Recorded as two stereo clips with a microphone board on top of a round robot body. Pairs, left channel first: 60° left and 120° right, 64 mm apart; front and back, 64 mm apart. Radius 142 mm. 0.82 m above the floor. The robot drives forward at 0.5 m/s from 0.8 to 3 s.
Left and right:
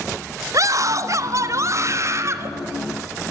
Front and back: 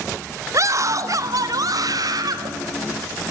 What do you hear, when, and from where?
0.5 s a scream: 150° right, 1.0 m; by 2.5 s 165° right, 1.7 m